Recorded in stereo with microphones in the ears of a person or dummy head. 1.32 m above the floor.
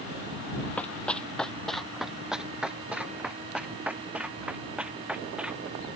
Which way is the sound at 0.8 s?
5° left (ahead or behind).